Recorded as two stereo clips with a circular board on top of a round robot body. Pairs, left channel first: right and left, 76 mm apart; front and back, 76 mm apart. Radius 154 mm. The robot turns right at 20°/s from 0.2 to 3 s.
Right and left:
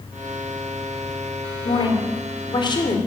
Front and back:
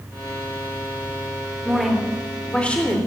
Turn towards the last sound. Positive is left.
turn(degrees=-70)